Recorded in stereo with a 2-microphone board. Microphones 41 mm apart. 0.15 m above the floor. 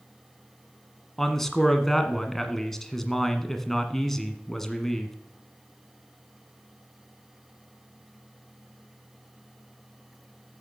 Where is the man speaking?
10° left (ahead or behind), 1.5 m.